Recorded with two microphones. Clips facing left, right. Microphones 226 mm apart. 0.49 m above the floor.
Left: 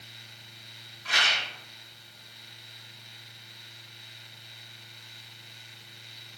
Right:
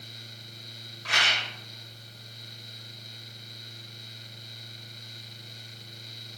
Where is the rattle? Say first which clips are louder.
Right 1 dB; 70° right (ahead or behind), 0.6 m.